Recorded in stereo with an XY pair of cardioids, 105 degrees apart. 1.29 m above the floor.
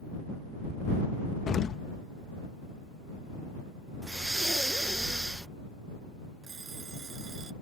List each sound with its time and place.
1.5 s an explosion: 50° left
4.0 s breathing: 10° right
6.4 s an alarm clock: 40° right